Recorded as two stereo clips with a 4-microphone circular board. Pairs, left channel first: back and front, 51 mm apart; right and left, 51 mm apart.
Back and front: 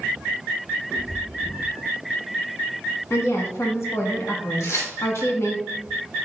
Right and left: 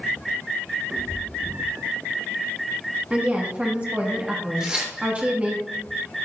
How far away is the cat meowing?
About 1.7 m.